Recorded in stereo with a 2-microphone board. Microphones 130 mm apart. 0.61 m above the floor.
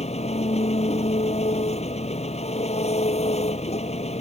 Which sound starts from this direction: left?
An engine running, at 0.0 s.